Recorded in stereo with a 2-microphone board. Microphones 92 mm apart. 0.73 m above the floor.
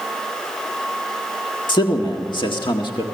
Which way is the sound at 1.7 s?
55° left (ahead or behind).